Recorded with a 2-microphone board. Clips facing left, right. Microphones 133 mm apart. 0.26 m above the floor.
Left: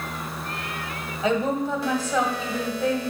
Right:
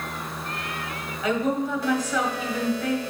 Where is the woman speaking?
30° left (ahead or behind), 1.1 m.